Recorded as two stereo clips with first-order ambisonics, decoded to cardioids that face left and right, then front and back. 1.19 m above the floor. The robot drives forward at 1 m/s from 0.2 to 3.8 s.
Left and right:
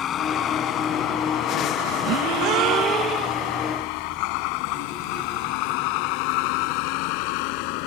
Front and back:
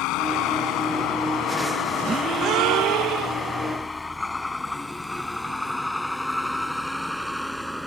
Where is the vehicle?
35° left; by 7.9 s 90° left.